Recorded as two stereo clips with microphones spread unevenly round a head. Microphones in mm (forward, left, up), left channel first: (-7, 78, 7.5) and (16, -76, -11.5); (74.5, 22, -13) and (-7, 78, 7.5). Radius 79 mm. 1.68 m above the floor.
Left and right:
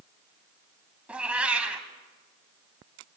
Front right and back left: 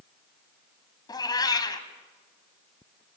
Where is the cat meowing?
5° left, 1.9 m.